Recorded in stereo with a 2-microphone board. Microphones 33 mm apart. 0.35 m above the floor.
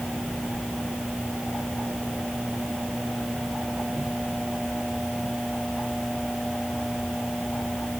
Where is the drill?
I don't hear a drill.